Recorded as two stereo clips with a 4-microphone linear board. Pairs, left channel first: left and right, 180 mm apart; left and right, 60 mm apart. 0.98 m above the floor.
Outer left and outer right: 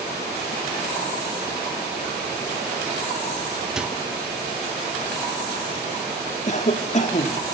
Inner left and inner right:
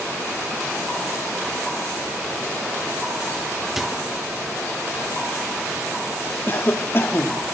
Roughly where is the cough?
Left.